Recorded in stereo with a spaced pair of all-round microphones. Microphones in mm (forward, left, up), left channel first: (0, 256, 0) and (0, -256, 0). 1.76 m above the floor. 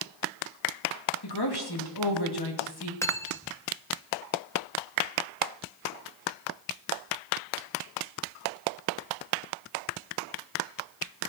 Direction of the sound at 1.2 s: 50° left (ahead or behind).